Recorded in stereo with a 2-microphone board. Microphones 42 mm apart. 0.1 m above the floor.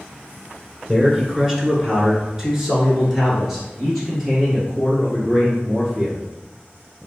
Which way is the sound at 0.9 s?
15° right (ahead or behind).